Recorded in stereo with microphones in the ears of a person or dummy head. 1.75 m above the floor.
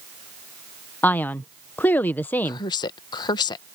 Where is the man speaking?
10° left (ahead or behind).